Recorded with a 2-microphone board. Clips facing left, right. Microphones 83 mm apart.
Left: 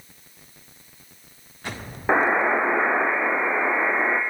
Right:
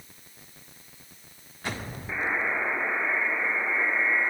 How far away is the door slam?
No door slam in this recording.